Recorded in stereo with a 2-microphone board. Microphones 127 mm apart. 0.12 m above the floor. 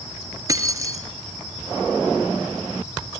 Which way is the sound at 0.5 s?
25° right (ahead or behind).